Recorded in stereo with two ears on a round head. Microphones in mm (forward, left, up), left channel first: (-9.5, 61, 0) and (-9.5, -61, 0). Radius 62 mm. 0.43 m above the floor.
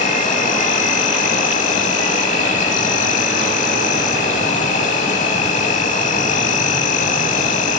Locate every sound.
0.0 s an insect: 60° left (ahead or behind), 0.8 m